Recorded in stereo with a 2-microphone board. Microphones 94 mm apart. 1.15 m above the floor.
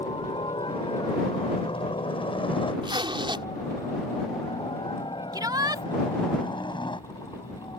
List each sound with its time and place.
0.0 s a helicopter: 70° left (ahead or behind); by 7.8 s 55° left (ahead or behind)
2.8 s a zipper: 65° right (ahead or behind)
5.3 s a shout: 50° right (ahead or behind)